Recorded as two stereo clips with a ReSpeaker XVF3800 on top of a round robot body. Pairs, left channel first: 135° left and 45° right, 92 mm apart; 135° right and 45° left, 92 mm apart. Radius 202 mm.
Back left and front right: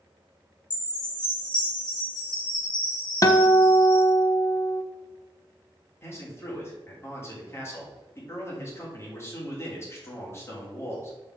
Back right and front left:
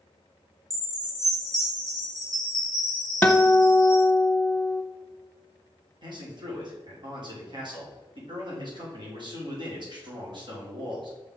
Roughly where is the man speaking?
Left.